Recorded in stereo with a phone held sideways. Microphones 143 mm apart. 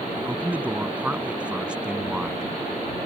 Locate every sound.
0.2 s a man speaking: 10° right (ahead or behind); by 2.5 s 5° right (ahead or behind)